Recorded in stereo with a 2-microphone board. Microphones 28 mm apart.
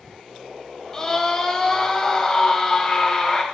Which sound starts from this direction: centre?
A scream, at 0.9 s.